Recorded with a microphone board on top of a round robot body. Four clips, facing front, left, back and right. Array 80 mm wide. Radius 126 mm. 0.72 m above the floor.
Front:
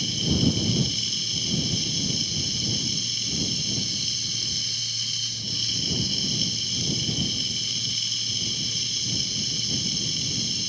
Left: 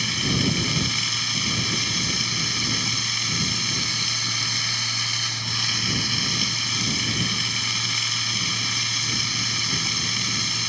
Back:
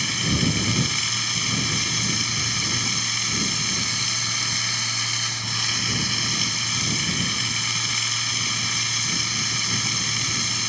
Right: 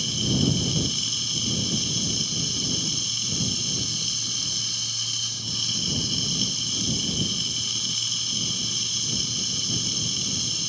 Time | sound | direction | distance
0.0 | running water | 145° left | ?